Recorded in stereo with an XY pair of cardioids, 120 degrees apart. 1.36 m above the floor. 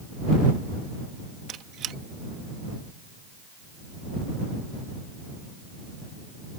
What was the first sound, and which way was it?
A squeak, 65° right.